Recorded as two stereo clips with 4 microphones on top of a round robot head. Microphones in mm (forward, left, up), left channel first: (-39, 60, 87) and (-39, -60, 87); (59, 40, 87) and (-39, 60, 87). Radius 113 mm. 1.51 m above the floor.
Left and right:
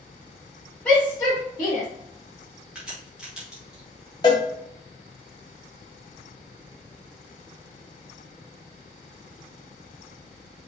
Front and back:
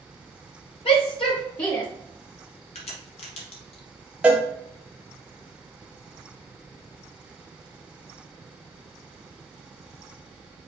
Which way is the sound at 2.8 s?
5° right.